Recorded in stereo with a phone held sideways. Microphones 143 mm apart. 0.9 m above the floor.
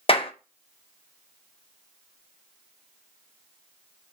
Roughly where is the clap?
Left.